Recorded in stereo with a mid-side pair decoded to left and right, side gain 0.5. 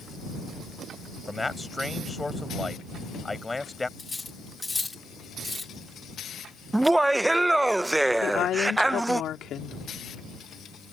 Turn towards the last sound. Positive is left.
turn(degrees=60)